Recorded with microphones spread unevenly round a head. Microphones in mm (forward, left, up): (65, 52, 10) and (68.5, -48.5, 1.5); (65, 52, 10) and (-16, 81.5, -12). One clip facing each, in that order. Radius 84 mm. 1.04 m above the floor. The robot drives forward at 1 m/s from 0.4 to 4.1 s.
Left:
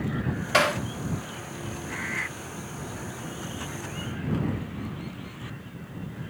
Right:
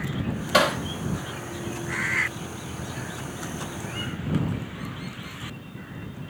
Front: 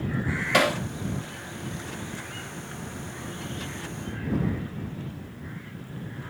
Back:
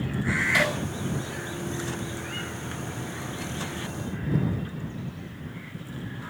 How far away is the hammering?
About 1.4 m.